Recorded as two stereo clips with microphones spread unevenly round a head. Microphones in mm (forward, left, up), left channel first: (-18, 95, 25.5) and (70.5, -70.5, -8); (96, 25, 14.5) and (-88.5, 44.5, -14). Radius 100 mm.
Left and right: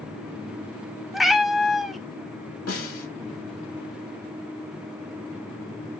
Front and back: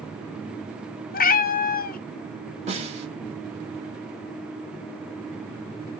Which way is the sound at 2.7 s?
120° left.